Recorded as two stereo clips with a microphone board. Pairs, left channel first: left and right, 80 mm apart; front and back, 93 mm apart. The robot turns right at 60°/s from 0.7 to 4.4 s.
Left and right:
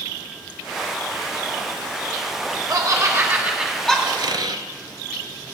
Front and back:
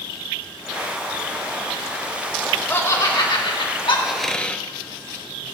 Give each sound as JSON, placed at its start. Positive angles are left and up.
{"t": 2.7, "sound": "laughter", "azimuth_deg": -65, "distance_m": 3.5}
{"t": 4.0, "sound": "a squeak", "azimuth_deg": -100, "distance_m": 0.6}